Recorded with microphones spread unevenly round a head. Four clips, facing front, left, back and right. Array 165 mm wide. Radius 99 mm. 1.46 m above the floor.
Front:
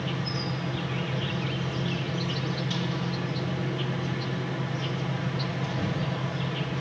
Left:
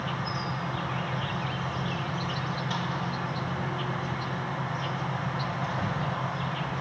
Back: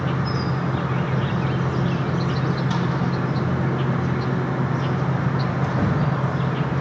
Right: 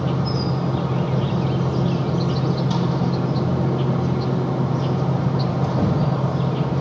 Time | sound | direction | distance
0.0 | an insect | 130° right | 0.8 m